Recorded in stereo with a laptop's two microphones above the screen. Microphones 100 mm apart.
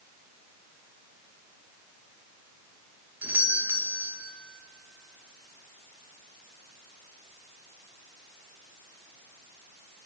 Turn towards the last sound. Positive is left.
turn(degrees=-20)  # may be behind; listen again after turning